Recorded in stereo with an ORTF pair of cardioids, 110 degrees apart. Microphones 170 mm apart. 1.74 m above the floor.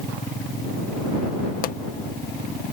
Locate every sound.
1.6 s a pop: 55° left